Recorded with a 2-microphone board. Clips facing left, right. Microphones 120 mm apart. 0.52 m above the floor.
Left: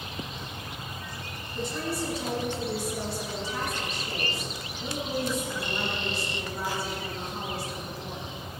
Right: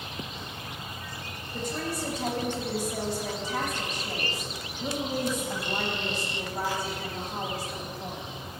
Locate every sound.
1.5 s a woman speaking: 50° right (ahead or behind), 3.5 m